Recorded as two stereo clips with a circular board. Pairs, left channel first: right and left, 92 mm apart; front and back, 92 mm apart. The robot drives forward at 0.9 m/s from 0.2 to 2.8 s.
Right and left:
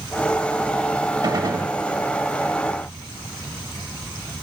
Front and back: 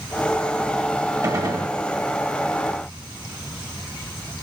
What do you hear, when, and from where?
1.2 s a gunshot: 130° left, 2.5 m; by 1.7 s 140° left, 3 m